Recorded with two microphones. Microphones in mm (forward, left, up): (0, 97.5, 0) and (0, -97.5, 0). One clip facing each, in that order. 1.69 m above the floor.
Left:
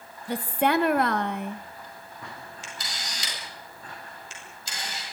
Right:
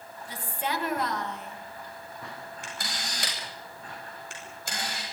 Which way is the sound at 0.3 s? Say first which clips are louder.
Left 10 dB; 65° left (ahead or behind).